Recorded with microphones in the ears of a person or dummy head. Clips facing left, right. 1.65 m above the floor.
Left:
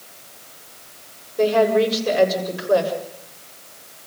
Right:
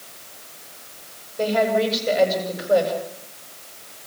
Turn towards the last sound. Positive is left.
turn(degrees=80)